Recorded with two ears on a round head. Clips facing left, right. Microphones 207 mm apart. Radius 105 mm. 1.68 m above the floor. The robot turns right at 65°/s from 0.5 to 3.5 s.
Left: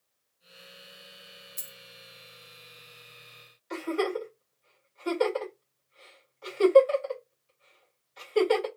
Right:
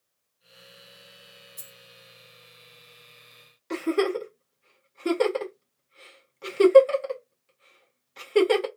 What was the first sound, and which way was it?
A dropped coin, 25° left (ahead or behind).